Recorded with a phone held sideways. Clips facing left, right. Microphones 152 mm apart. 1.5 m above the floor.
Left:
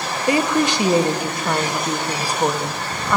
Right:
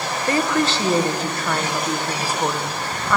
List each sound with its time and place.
0.3 s a woman speaking: 15° left (ahead or behind), 1.0 m